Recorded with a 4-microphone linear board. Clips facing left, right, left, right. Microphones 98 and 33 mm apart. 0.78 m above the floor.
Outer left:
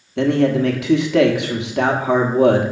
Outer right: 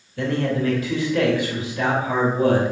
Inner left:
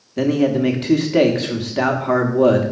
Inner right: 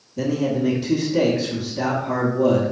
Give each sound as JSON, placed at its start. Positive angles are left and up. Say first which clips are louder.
{"t": 0.2, "sound": "a man speaking", "louder": "outer left 7 dB, inner left 5 dB", "side_deg": 70, "distance_m": 1.2}